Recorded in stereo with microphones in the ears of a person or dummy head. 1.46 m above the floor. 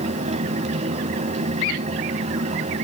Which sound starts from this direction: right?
A fan, at 0.0 s.